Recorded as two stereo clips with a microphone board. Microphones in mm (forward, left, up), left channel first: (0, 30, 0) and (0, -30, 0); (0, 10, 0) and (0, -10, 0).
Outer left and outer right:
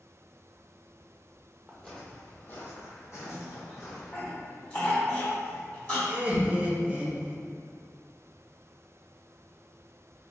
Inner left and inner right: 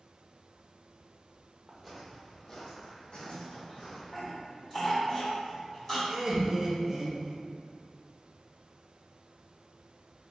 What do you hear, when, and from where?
1.7 s footsteps: centre (ahead or behind), 1.0 m; by 4.2 s 65° left (ahead or behind), 2 m
3.3 s a cough: 35° left (ahead or behind), 1.8 m
6.1 s laughter: 20° right (ahead or behind), 0.8 m